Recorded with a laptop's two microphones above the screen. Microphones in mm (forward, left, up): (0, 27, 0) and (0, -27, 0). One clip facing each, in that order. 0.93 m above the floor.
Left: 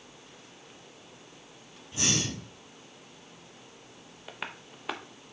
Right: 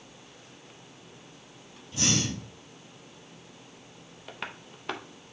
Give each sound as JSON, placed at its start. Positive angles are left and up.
{"t": 1.9, "sound": "breathing", "side_deg": 25, "distance_m": 3.0}
{"t": 4.3, "sound": "tapping", "side_deg": 5, "distance_m": 0.7}